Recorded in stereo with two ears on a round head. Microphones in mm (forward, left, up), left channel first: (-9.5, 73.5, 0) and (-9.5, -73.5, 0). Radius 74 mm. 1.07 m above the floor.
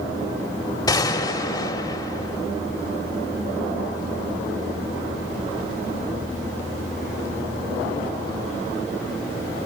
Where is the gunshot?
25° left (ahead or behind), 2 m.